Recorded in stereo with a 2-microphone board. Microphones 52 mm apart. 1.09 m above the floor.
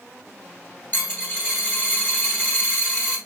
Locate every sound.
0.9 s a dropped coin: 30° left (ahead or behind), 1.7 m